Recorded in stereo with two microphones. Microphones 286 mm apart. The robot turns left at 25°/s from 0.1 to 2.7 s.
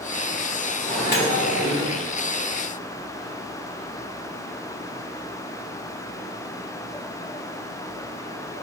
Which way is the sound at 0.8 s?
30° left (ahead or behind).